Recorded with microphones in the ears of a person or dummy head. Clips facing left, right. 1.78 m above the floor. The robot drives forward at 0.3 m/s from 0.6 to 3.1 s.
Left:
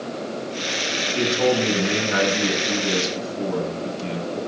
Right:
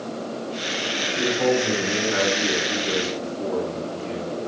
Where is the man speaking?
65° left (ahead or behind), 2.5 m; by 4.4 s 75° left (ahead or behind), 2.5 m.